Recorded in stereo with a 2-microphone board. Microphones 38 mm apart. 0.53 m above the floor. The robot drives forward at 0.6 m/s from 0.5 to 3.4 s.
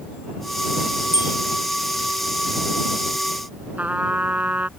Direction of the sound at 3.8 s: 45° right (ahead or behind).